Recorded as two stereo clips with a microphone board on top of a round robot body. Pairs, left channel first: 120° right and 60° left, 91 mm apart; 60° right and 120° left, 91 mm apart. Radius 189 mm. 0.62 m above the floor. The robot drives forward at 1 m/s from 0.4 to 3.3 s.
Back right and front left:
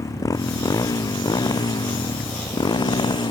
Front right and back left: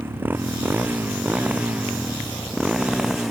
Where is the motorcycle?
175° right; by 3.3 s 155° right.